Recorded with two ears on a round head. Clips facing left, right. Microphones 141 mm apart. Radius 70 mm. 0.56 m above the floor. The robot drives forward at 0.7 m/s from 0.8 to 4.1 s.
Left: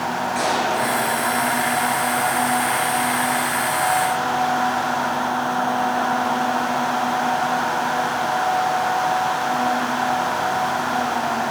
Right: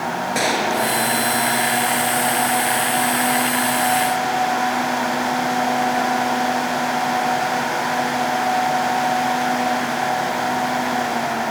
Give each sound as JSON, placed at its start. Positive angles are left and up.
{"t": 0.3, "sound": "a gunshot", "side_deg": -75, "distance_m": 7.0}